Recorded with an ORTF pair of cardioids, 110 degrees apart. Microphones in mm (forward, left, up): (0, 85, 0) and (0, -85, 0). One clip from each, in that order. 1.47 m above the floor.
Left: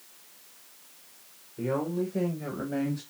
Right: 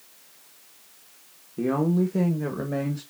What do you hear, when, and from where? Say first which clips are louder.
1.6 s a woman speaking: right 5 dB; 50° right, 1.7 m; by 3.0 s 25° right, 1.5 m